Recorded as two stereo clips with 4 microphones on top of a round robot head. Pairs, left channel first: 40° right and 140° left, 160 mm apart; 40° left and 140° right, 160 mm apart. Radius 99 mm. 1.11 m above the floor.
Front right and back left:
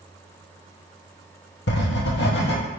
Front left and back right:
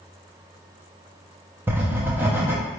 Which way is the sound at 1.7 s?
60° right.